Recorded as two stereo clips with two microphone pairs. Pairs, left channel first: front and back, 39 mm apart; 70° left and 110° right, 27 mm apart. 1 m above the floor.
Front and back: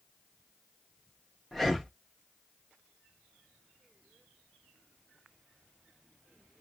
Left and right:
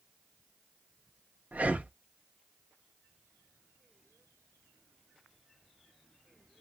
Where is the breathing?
85° right, 0.7 m.